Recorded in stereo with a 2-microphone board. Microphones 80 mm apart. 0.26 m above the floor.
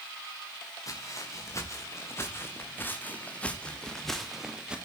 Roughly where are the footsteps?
Left.